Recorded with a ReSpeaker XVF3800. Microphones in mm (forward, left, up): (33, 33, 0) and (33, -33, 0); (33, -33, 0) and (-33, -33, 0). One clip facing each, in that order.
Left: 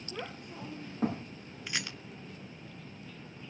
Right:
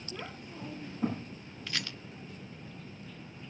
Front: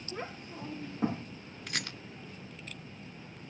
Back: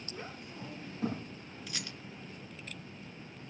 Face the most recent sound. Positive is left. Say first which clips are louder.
# left 1 dB, front 6 dB
turn(degrees=15)